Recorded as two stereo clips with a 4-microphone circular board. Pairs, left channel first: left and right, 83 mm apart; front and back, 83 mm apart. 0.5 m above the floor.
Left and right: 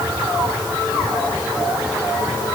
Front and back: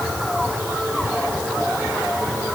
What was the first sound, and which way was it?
Only background noise.